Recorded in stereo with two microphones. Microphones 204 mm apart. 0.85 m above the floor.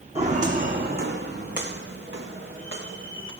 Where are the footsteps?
30° right (ahead or behind), 2 m; by 3.3 s 70° right (ahead or behind), 4.5 m.